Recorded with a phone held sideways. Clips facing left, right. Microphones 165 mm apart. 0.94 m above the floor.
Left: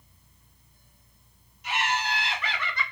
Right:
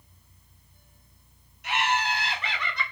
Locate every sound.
1.6 s laughter: 65° right (ahead or behind), 1.2 m; by 2.8 s 5° right (ahead or behind), 0.9 m